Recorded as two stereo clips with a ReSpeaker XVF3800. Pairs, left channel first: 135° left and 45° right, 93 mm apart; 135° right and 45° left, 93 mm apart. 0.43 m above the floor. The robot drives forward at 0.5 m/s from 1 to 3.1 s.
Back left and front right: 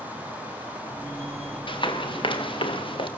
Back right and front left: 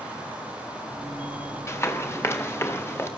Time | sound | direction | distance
1.7 | running footsteps | 165° left | 4 m